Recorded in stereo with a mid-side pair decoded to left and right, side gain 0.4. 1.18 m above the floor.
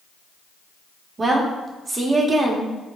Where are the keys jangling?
No keys jangling in this recording.